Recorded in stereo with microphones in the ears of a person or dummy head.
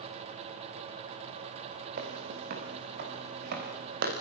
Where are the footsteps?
55° right (ahead or behind), 3.5 m.